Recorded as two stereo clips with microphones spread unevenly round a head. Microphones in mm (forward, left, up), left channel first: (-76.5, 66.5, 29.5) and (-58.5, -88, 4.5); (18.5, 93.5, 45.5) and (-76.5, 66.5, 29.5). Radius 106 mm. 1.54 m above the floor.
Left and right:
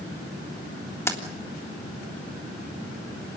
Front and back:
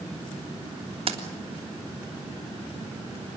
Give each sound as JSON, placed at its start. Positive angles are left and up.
{"t": 1.1, "sound": "keys jangling", "azimuth_deg": 170, "distance_m": 3.0}